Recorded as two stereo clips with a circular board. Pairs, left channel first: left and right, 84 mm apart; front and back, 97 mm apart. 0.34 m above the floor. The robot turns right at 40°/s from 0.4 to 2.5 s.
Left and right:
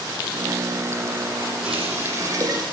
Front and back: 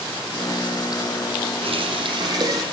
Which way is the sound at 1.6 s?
170° right.